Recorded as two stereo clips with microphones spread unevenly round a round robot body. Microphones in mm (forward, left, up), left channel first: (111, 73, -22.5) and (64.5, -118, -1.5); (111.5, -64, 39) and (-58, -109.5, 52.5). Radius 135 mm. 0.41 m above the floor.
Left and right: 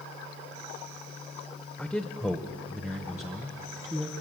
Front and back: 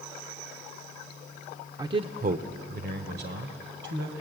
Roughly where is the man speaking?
Behind left.